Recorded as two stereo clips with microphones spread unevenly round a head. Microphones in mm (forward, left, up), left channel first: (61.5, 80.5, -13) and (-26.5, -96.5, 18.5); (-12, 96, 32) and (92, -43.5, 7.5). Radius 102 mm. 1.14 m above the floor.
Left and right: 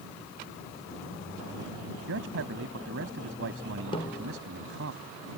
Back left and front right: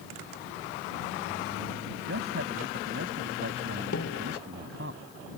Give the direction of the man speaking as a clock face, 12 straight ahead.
3 o'clock.